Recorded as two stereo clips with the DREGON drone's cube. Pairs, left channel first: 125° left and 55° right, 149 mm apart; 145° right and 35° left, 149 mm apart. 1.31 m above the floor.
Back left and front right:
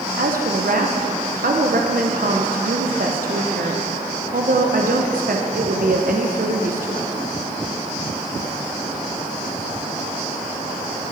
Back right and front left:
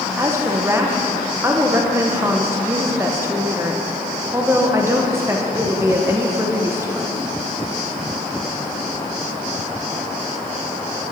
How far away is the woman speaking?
About 0.8 m.